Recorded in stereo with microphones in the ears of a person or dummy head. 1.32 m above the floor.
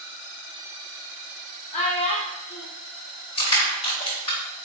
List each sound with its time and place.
1.7 s a child speaking: 30° left (ahead or behind), 1.3 m
3.4 s crushing: 30° left (ahead or behind), 2.5 m